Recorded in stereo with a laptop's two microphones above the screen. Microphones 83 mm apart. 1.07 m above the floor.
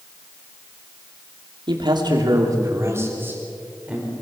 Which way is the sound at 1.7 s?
70° right (ahead or behind).